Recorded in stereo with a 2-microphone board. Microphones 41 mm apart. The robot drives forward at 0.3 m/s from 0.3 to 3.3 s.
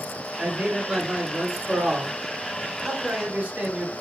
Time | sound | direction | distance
0.4 | a man speaking | 20° right (ahead or behind) | 1.5 m